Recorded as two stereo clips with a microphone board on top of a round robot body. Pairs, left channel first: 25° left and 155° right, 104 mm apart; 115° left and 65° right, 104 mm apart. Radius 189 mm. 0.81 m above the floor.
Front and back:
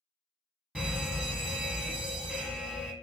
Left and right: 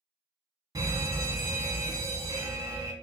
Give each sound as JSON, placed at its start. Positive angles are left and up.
{"t": 0.8, "sound": "a fire alarm", "azimuth_deg": -70, "distance_m": 1.5}